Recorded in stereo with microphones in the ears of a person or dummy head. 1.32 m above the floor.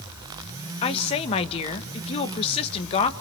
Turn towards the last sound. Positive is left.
turn(degrees=30)  # may be behind; listen again after turning